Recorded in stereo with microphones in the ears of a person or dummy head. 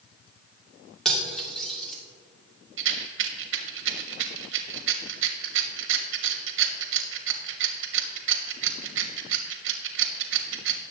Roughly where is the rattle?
Right.